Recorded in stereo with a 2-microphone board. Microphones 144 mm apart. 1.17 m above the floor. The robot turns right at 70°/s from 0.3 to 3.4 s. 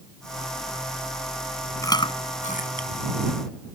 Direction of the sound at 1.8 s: 20° left (ahead or behind).